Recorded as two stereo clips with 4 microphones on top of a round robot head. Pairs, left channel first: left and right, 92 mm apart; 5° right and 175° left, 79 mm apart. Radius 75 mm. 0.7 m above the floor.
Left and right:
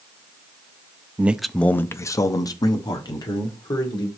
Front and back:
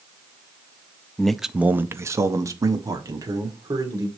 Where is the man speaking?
65° right, 0.5 m; by 4.1 s 130° left, 2 m.